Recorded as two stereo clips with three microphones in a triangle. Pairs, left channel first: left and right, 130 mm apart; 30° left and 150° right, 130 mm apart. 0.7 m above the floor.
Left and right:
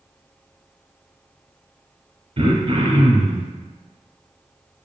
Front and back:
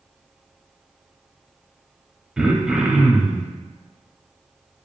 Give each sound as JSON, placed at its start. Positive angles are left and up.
{"t": 2.4, "sound": "throat clearing", "azimuth_deg": -70, "distance_m": 0.7}